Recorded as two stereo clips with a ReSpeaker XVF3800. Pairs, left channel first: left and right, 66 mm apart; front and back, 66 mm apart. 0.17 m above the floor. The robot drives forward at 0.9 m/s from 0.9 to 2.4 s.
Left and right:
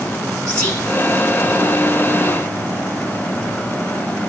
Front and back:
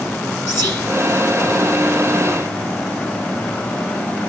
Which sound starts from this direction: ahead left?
Whispering, at 0.5 s.